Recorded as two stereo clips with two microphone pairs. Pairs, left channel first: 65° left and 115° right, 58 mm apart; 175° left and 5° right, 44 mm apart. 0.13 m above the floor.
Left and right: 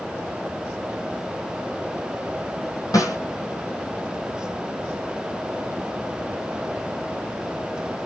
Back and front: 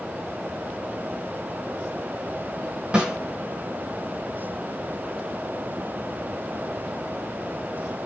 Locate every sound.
2.9 s a snare drum: 70° left, 1.1 m